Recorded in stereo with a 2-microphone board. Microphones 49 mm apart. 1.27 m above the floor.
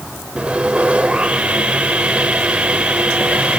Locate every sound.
0.4 s sawing: 20° right (ahead or behind), 2 m